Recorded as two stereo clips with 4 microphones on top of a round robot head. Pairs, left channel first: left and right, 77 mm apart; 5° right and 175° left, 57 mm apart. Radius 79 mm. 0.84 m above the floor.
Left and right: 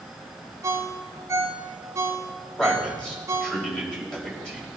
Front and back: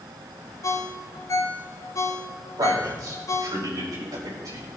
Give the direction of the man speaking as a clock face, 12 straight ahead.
6 o'clock.